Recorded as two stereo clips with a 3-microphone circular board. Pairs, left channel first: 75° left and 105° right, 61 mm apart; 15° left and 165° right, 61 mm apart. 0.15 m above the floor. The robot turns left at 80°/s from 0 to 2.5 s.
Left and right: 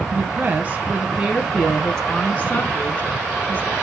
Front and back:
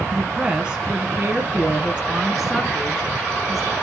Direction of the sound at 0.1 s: 65° right.